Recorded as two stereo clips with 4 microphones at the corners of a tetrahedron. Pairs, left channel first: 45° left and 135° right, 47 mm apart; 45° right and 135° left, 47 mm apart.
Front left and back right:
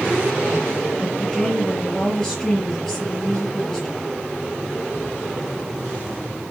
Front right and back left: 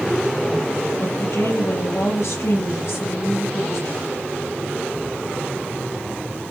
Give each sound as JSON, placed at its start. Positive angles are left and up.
{"t": 1.0, "sound": "a woman speaking", "azimuth_deg": -30, "distance_m": 4.5}